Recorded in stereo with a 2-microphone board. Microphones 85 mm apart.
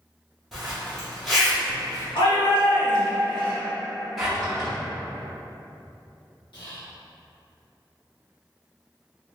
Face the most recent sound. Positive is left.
turn(degrees=75)  # may be behind; listen again after turning